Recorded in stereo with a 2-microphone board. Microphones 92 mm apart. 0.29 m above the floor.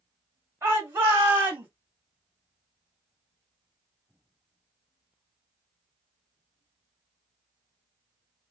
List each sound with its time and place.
0.6 s a shout: 25° right (ahead or behind), 1.5 m